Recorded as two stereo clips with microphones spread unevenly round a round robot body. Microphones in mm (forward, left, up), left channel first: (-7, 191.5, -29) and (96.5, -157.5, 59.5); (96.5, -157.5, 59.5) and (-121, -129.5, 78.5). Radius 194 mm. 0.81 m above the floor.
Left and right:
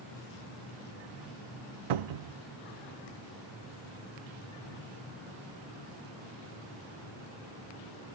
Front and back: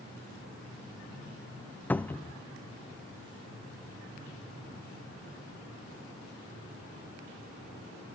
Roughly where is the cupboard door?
Right.